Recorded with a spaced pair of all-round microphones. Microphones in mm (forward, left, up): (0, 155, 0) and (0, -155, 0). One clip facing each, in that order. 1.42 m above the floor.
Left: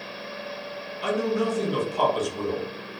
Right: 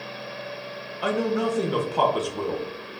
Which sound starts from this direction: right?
A man speaking, at 1.0 s.